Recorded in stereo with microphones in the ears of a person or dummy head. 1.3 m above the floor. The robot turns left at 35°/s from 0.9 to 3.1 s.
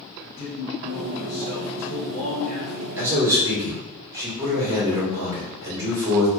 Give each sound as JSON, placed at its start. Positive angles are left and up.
{"t": 0.2, "sound": "a man speaking", "azimuth_deg": 55, "distance_m": 1.1}
{"t": 3.0, "sound": "a man speaking", "side_deg": -10, "distance_m": 1.7}